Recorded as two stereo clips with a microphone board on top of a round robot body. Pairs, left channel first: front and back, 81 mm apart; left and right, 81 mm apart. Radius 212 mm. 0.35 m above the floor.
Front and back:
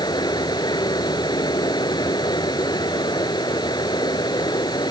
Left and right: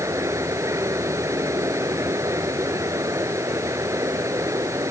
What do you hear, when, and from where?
0.0 s running water: 35° right